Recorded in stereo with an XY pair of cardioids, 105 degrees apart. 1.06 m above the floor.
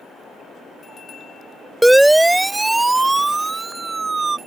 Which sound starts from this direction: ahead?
A siren, at 1.8 s.